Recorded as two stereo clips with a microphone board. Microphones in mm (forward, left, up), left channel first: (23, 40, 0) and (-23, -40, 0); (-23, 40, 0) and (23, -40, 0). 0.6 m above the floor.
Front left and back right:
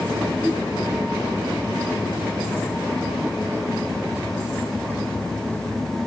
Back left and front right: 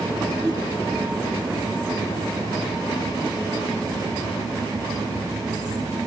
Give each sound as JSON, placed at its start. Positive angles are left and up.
{"t": 0.4, "sound": "a whoosh", "azimuth_deg": -45, "distance_m": 3.0}